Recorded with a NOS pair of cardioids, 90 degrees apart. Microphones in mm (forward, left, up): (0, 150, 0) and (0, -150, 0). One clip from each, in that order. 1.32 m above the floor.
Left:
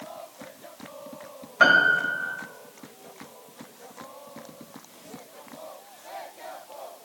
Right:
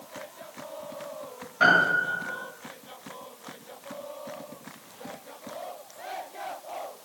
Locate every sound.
1.6 s a piano: 50° left, 1.8 m